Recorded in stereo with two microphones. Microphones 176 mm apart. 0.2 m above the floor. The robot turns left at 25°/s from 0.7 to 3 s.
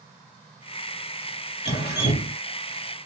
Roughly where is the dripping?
Left.